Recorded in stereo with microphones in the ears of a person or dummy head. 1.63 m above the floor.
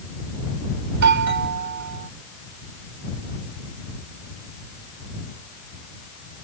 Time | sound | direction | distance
0.9 | a doorbell | 65° right (ahead or behind) | ?